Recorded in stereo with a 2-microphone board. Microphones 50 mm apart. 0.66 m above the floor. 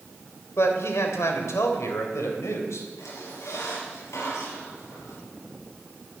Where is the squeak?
80° left, 5.5 m.